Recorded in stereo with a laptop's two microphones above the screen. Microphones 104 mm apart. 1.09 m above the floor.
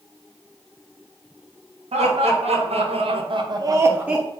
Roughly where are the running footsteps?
I don't hear running footsteps.